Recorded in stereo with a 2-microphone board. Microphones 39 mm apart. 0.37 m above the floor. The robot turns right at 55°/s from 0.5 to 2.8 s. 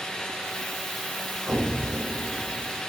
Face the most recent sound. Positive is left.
turn(degrees=-70)